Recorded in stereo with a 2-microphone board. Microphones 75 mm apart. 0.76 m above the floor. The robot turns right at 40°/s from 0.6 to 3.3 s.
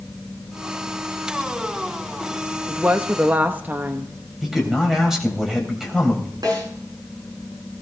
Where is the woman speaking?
20° right (ahead or behind), 1.0 m; by 4.1 s 25° right (ahead or behind), 1.0 m.